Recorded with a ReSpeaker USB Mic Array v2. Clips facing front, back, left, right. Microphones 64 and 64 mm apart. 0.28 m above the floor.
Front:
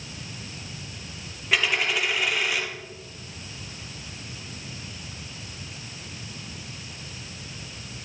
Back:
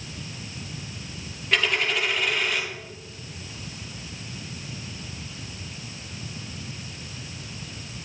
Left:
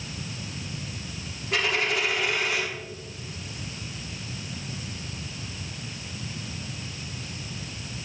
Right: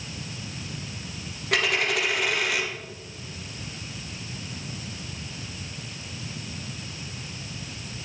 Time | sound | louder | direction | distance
1.5 | a dropped coin | even, right 1 dB | 85° right | 2.5 m